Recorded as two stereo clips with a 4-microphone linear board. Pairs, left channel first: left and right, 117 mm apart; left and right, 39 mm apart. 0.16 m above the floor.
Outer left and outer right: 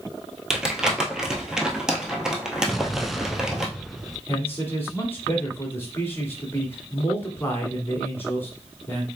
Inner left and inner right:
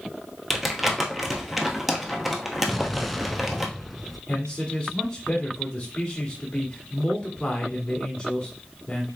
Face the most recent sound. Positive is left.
turn(degrees=20)  # may be behind; listen again after turning